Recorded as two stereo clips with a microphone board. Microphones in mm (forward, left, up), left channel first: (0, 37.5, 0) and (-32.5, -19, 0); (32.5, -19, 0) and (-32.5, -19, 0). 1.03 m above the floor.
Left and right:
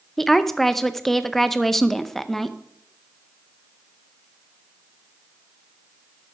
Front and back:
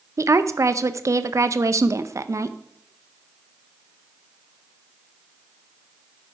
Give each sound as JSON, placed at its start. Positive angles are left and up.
{"t": 0.2, "sound": "a woman speaking", "azimuth_deg": 145, "distance_m": 0.6}